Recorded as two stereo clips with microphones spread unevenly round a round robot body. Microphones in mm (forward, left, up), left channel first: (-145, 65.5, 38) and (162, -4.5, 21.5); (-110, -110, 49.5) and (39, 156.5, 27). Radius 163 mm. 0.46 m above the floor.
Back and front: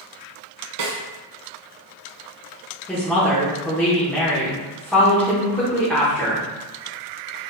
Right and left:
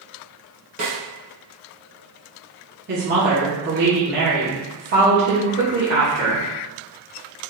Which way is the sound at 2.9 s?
80° left.